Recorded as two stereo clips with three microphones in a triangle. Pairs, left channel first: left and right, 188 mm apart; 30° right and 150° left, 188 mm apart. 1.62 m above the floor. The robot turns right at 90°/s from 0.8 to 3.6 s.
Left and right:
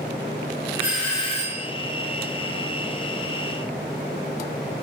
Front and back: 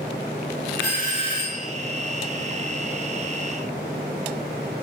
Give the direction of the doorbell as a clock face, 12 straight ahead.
12 o'clock.